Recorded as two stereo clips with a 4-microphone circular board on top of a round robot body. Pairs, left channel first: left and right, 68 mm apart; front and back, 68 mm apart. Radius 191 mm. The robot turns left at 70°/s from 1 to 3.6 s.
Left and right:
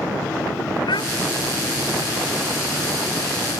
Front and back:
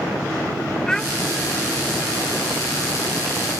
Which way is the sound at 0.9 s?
80° left.